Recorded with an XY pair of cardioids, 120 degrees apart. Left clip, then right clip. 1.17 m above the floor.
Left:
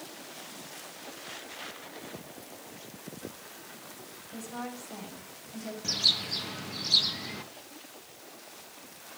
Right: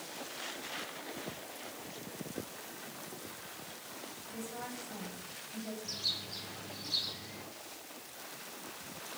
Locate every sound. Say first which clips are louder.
4.3 s a woman speaking: left 4 dB; 30° left, 6.5 m
5.8 s a bird: left 11 dB; 60° left, 1.1 m